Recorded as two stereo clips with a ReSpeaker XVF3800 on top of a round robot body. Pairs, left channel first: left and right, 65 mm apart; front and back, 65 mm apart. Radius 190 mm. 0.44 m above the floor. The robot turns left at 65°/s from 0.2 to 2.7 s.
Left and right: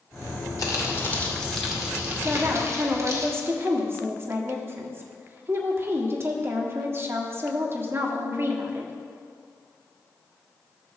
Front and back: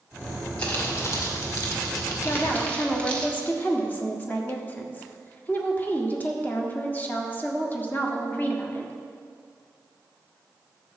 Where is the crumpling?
70° left, 2 m; by 3.2 s 70° right, 2 m.